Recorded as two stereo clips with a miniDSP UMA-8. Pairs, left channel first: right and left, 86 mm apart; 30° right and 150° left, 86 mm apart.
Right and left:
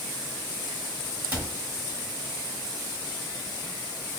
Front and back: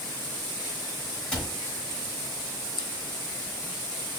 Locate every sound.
1.3 s a cupboard door: 40° left, 1.7 m